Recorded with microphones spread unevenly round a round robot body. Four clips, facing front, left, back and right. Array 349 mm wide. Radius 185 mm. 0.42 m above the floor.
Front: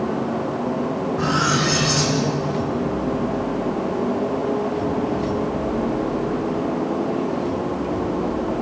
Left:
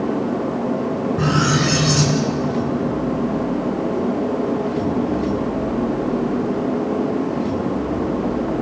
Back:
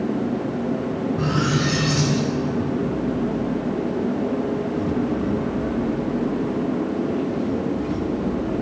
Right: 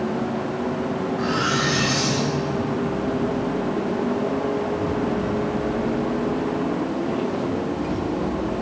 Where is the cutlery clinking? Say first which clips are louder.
Left 5 dB, front 3 dB; 100° left, 3 m.